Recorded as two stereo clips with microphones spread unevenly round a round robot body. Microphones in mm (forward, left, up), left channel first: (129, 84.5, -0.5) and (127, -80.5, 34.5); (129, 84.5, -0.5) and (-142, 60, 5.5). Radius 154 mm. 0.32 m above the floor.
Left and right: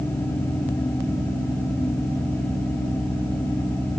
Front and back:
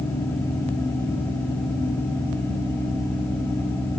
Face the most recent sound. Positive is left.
No sound to turn to.